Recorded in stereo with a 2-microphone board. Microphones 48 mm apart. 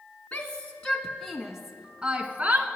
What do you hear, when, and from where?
0.3 s a shout: 25° left (ahead or behind), 1.3 m; by 2.7 s 35° right (ahead or behind), 1.4 m